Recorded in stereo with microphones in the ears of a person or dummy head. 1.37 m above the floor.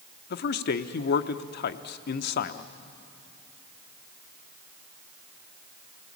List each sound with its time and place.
0.3 s a man speaking: 60° left (ahead or behind), 0.8 m